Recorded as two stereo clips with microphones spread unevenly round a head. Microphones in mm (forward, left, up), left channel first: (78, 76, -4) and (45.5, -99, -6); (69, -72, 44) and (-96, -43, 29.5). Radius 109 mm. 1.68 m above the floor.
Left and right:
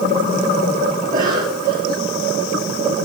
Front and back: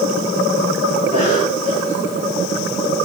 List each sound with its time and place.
1.0 s a cough: 60° right, 5.5 m